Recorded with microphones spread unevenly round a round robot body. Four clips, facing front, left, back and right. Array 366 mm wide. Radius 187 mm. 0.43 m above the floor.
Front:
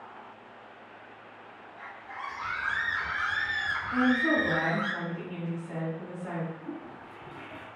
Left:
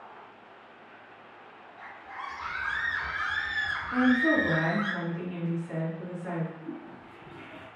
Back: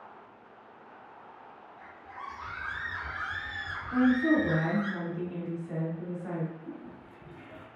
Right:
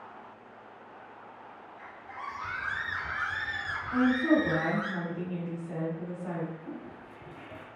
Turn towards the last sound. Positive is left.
turn(degrees=-70)